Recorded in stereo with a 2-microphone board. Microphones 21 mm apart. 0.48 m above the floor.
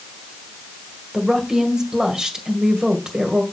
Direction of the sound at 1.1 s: 35° right (ahead or behind).